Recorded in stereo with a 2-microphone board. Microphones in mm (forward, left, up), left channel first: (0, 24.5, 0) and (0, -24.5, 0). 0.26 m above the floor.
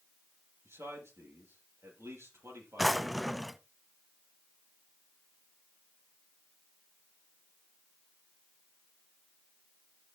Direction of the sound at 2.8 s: Centre (ahead or behind).